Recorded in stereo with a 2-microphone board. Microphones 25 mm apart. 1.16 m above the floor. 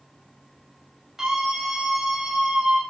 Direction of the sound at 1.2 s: 25° right (ahead or behind).